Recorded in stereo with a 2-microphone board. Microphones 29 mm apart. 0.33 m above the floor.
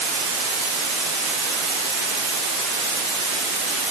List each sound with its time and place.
Only background noise.